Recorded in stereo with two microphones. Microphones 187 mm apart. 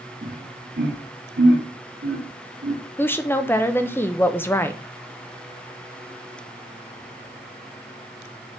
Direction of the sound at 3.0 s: 10° left (ahead or behind).